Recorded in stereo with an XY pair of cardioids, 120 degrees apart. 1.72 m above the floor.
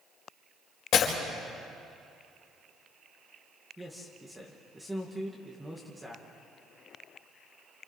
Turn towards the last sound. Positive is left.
turn(degrees=-10)